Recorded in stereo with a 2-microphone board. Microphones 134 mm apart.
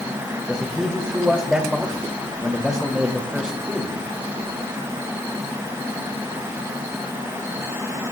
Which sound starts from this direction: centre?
A man speaking, at 0.5 s.